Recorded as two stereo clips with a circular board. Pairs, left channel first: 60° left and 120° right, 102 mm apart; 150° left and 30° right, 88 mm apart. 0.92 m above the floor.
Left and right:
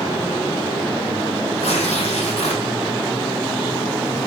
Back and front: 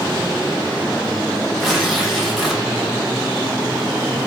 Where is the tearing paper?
60° left, 1.4 m.